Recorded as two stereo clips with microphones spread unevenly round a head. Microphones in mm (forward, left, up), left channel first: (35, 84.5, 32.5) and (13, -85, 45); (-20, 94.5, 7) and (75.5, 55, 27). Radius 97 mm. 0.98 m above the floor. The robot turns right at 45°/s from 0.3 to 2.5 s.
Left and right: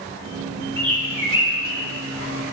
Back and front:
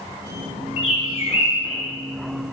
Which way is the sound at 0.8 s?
160° left.